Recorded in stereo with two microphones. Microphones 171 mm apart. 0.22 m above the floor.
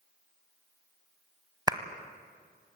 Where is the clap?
25° right (ahead or behind), 1.0 m.